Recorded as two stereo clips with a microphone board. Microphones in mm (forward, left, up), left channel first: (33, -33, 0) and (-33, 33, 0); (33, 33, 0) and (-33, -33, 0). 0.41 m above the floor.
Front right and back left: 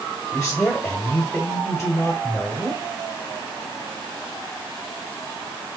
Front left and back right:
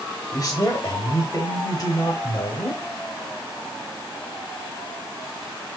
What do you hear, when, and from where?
0.3 s a man speaking: 30° left, 1.1 m